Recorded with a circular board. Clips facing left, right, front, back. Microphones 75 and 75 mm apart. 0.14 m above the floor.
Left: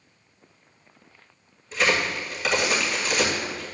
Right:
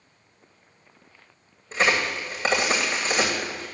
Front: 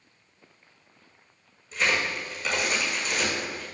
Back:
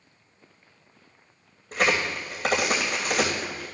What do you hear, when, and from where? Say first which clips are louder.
1.7 s a crack: right 1 dB, back 2 dB; 145° right, 2.5 m